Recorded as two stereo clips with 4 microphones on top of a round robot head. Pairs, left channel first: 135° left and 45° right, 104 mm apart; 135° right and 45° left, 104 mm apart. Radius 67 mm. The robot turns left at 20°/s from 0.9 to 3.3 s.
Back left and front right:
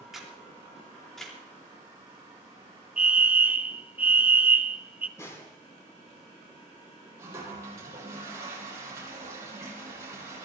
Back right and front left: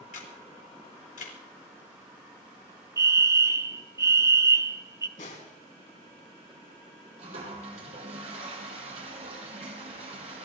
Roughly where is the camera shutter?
Behind right.